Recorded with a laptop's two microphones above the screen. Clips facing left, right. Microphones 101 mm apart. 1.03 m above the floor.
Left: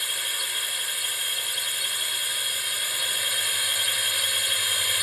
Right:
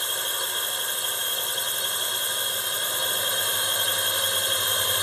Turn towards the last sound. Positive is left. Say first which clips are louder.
# right 4 dB
turn(degrees=-30)  # may be behind; listen again after turning